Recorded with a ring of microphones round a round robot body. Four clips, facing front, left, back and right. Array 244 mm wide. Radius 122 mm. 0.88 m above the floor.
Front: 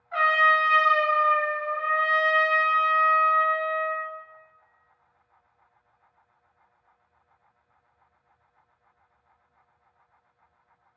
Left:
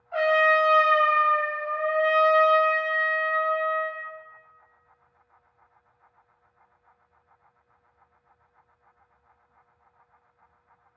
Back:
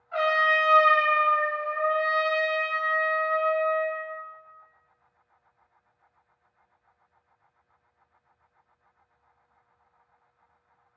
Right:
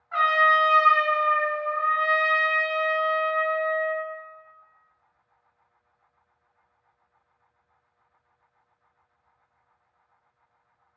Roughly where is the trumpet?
Right.